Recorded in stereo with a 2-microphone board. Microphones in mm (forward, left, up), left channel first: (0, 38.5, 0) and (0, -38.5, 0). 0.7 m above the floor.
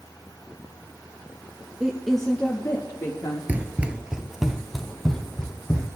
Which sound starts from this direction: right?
Running footsteps, at 3.5 s.